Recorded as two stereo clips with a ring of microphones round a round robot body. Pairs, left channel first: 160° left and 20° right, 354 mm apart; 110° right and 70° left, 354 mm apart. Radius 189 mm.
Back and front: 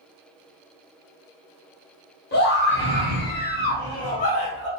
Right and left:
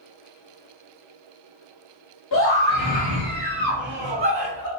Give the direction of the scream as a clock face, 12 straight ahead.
5 o'clock.